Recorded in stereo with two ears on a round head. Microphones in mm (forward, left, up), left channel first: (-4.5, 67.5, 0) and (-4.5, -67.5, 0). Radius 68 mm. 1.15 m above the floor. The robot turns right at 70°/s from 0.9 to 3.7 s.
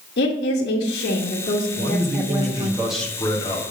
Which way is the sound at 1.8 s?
80° right.